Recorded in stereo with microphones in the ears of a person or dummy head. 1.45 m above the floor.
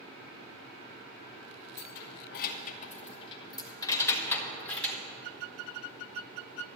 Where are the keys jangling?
70° left (ahead or behind), 1.1 m; by 5.0 s 5° left (ahead or behind), 2 m.